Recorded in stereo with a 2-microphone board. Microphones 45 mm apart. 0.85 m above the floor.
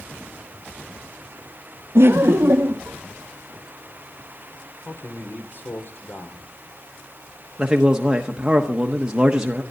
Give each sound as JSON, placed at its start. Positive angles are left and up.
{"t": 1.9, "sound": "laughter", "side_deg": -60, "distance_m": 0.6}
{"t": 4.8, "sound": "a man speaking", "side_deg": 50, "distance_m": 3.0}
{"t": 7.6, "sound": "a man speaking", "side_deg": -15, "distance_m": 1.3}